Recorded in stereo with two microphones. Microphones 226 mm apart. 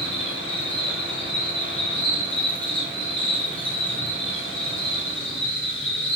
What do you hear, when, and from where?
0.0 s an insect: 5° left (ahead or behind), 3.5 m